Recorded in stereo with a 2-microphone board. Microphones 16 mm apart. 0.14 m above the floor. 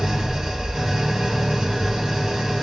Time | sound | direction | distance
0.0 | an engine running | 55° right (ahead or behind) | 1.3 m